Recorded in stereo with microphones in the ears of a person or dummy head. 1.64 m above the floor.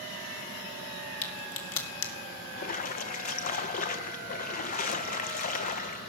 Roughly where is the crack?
Left.